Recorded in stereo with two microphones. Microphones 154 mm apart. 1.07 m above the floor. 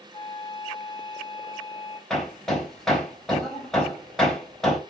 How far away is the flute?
About 4.5 m.